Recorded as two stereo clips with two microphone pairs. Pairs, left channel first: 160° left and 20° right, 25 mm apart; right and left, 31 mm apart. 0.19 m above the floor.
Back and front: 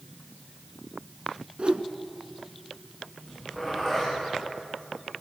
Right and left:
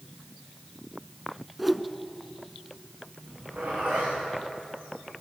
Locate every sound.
1.6 s a whoosh: 5° left, 1.0 m
3.2 s a zipper: 55° left, 8.5 m